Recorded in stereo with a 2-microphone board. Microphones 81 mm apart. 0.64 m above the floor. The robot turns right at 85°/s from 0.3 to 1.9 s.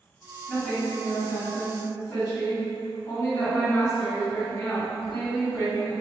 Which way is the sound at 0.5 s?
5° right.